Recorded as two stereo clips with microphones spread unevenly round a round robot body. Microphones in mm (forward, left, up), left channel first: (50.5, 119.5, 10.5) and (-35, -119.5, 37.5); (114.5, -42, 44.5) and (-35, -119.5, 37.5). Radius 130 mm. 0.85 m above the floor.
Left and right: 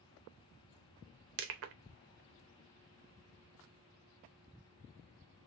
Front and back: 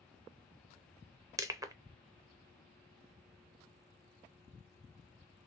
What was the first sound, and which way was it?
Crushing, 85° right.